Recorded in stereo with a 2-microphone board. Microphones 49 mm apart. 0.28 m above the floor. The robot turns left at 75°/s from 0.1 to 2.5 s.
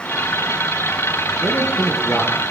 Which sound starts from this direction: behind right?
A man speaking, at 1.4 s.